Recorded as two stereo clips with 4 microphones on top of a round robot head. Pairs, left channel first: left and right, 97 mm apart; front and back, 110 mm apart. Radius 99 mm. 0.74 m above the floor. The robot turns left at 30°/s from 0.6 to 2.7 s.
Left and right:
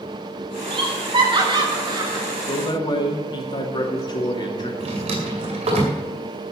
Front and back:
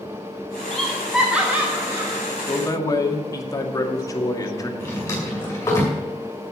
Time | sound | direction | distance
0.7 | laughter | 85° right | 1.6 m
2.4 | a man speaking | 60° left | 2 m
4.8 | a drawer | 70° right | 2.5 m